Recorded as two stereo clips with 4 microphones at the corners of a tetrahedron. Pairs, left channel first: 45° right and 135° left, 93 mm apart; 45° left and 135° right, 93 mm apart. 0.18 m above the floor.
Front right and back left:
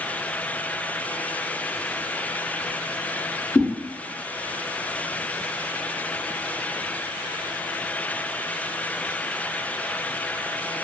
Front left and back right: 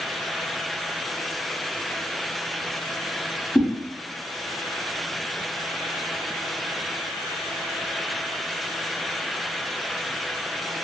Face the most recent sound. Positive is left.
turn(degrees=20)